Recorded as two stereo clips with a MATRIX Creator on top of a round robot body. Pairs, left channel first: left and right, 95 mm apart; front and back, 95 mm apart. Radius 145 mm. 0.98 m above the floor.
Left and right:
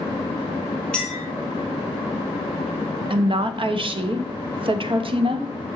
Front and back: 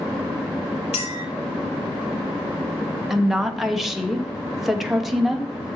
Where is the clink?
10° left, 3.5 m.